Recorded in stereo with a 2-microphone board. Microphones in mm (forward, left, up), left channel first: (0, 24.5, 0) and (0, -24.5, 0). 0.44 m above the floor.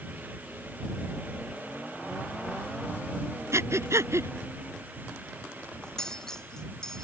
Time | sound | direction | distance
3.5 | breathing | 75° right (ahead or behind) | ?
5.8 | cutlery clinking | 10° left (ahead or behind) | ?